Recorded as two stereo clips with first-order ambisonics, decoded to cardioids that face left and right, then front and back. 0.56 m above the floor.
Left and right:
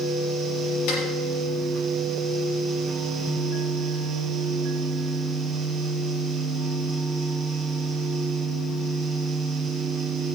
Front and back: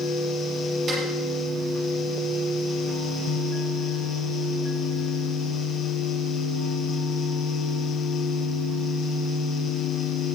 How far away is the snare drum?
About 6 m.